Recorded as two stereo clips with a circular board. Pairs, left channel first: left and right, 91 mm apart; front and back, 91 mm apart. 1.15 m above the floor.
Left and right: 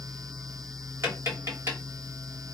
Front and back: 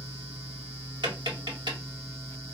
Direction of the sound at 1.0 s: 150° right.